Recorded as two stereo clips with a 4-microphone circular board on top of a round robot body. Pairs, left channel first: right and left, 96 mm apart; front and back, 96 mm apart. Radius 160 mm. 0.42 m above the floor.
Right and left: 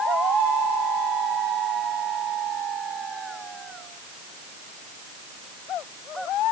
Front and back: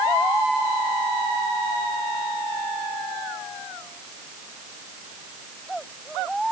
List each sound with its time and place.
Only background noise.